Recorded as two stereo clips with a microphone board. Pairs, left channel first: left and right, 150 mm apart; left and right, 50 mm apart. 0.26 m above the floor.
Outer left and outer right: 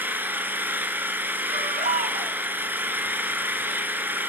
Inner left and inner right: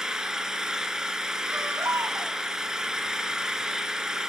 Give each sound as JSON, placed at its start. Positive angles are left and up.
{"t": 0.0, "sound": "an engine running", "side_deg": -15, "distance_m": 1.5}
{"t": 1.5, "sound": "a baby crying", "side_deg": -60, "distance_m": 1.0}